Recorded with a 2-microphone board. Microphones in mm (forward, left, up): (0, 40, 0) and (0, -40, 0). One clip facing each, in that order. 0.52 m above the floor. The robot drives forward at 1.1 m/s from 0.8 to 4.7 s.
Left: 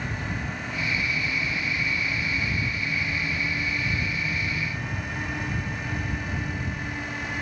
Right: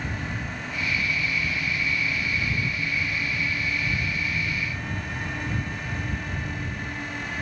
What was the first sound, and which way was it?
Only background noise.